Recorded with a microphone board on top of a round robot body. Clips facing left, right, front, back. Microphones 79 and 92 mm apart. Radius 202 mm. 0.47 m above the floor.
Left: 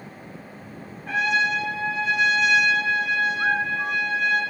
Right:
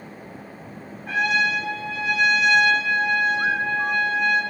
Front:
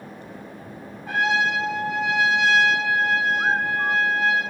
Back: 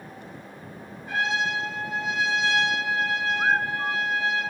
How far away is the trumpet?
About 6 m.